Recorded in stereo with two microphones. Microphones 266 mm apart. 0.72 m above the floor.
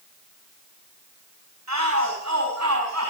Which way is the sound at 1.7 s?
85° right.